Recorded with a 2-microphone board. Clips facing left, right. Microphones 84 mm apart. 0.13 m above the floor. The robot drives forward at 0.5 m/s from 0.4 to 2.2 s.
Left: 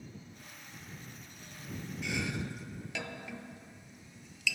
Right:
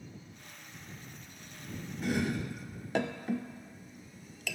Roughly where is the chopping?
Right.